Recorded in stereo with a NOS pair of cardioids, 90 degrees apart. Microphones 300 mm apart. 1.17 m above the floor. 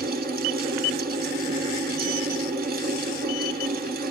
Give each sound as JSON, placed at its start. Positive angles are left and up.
{"t": 0.0, "sound": "a fan", "azimuth_deg": -30, "distance_m": 1.2}